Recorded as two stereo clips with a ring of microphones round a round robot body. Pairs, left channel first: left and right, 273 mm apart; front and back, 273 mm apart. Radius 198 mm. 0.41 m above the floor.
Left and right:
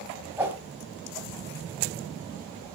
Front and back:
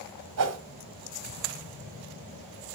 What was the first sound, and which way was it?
A whoosh, 175° right.